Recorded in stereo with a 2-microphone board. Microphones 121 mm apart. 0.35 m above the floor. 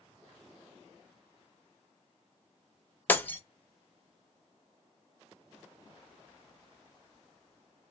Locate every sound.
3.1 s breaking glass: 15° left (ahead or behind), 0.5 m